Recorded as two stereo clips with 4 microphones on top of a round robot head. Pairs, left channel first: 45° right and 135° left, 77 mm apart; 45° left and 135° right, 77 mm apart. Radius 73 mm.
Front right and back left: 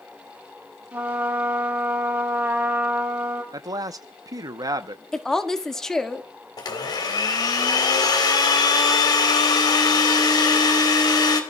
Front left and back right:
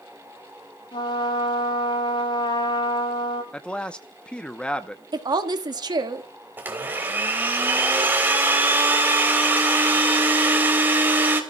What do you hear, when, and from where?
0.9 s a trumpet: 65° left, 9 m
3.5 s a man speaking: 120° left, 0.9 m
5.1 s a woman speaking: 125° right, 1.6 m
6.6 s a blender: 70° right, 3 m